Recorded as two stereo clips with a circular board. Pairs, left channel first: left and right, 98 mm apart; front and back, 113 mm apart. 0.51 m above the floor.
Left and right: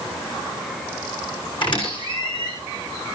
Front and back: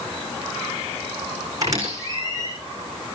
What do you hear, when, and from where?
1.6 s a squeak: 120° left, 6.5 m